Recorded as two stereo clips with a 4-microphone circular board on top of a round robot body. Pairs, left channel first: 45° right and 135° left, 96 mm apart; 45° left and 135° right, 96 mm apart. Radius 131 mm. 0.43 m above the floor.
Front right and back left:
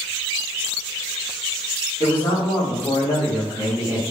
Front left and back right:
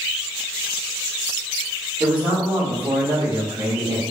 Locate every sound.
2.0 s a man speaking: 65° right, 1.4 m; by 4.0 s 120° right, 1.4 m